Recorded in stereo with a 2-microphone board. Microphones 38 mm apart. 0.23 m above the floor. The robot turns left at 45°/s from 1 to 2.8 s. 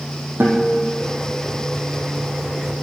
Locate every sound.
0.4 s a guitar: 65° right (ahead or behind), 2 m